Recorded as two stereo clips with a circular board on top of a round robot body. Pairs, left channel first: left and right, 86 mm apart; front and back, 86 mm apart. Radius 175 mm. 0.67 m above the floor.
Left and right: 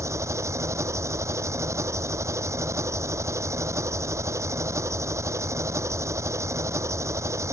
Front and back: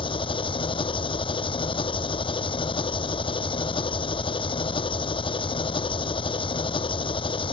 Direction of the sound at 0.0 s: 30° right.